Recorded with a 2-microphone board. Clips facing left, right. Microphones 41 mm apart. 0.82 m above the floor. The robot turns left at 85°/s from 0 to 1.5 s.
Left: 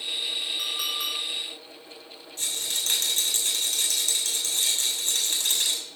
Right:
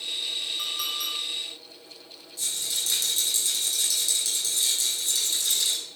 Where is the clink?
5° right (ahead or behind), 5.5 m; by 1.2 s 45° left (ahead or behind), 5.5 m.